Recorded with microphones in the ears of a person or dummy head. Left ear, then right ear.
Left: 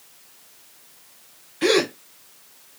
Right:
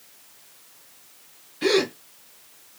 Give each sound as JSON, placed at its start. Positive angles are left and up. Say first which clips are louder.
{"t": 1.6, "sound": "a gasp", "louder": "left 2 dB", "side_deg": 25, "distance_m": 0.5}